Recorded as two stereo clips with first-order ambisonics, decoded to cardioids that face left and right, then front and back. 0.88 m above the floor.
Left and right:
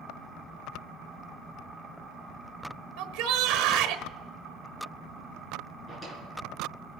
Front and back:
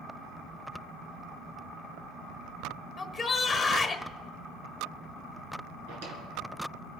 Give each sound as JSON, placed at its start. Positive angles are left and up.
{"t": 3.0, "sound": "a shout", "azimuth_deg": -85, "distance_m": 1.1}
{"t": 5.9, "sound": "a drawer", "azimuth_deg": 165, "distance_m": 3.5}